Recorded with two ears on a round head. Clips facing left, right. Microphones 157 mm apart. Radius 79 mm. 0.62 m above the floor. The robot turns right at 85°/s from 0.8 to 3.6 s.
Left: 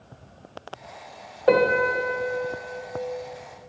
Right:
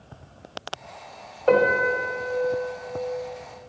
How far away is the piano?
About 1.2 m.